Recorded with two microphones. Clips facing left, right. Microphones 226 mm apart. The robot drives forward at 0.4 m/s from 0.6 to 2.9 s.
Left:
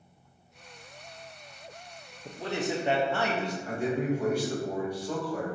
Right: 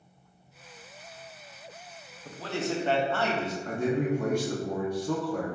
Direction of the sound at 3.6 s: 50° right (ahead or behind).